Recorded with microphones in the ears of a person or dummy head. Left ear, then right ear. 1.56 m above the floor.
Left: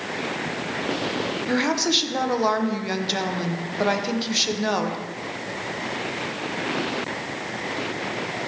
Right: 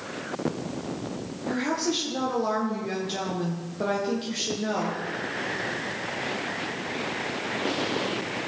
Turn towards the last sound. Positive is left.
turn(degrees=35)  # may be behind; listen again after turning